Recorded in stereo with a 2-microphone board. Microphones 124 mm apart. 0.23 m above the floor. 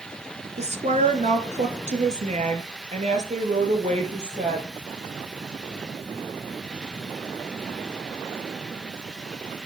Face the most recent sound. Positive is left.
turn(degrees=-70)  # may be behind; listen again after turning